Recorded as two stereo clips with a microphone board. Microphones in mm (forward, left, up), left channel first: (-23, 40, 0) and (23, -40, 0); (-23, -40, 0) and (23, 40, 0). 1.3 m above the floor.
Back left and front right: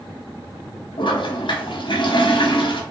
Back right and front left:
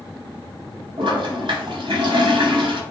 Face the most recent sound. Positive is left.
turn(degrees=90)